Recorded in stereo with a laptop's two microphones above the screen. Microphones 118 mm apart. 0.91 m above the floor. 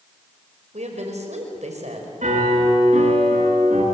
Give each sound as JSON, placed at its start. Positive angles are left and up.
{"t": 0.7, "sound": "a woman speaking", "side_deg": -70, "distance_m": 5.0}
{"t": 2.2, "sound": "a piano", "side_deg": -80, "distance_m": 9.0}